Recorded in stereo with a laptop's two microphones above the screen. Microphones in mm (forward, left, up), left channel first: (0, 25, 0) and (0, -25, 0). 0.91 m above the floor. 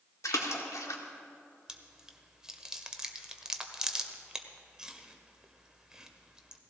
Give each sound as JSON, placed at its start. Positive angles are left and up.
{"t": 0.2, "sound": "a splash", "side_deg": 85, "distance_m": 1.6}
{"t": 1.7, "sound": "chewing", "side_deg": -15, "distance_m": 1.4}